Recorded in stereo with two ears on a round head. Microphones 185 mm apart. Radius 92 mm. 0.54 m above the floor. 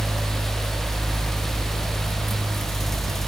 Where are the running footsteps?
No running footsteps in this recording.